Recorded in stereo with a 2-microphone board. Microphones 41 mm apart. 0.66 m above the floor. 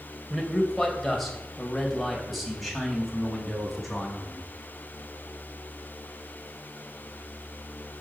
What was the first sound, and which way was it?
A man speaking, centre (ahead or behind).